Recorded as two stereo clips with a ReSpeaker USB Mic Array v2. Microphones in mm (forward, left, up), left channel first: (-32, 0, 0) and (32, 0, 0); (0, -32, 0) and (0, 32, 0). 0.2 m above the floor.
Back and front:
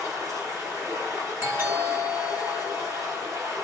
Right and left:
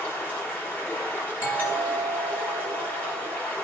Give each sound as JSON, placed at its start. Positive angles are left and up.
{"t": 0.0, "sound": "running water", "azimuth_deg": -30, "distance_m": 4.0}
{"t": 1.4, "sound": "a doorbell", "azimuth_deg": -45, "distance_m": 3.5}